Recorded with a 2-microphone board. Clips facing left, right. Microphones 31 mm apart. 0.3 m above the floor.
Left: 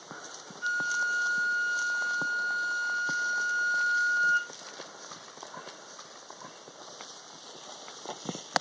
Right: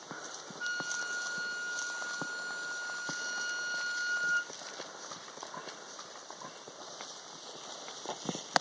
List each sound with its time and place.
0.6 s a flute: 50° right (ahead or behind), 4.5 m